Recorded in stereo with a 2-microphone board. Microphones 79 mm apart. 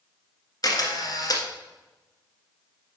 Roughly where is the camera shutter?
Left.